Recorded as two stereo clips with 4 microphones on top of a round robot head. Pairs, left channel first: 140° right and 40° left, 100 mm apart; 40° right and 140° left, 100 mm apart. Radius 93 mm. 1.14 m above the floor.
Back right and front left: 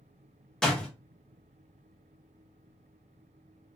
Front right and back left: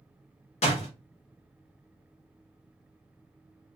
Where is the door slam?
55° right, 1.1 m.